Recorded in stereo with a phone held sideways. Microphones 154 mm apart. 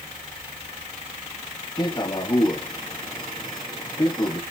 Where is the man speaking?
25° left (ahead or behind), 1.3 m.